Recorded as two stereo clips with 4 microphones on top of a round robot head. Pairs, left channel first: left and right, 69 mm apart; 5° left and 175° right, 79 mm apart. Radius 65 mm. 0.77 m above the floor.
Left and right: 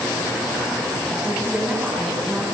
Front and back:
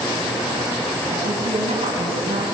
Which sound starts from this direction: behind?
A woman speaking, at 1.1 s.